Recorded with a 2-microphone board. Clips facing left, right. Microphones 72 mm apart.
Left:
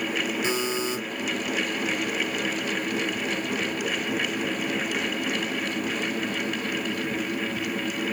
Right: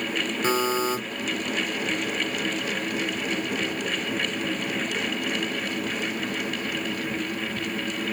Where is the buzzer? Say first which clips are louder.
Right 3 dB; 45° right (ahead or behind), 1.7 m.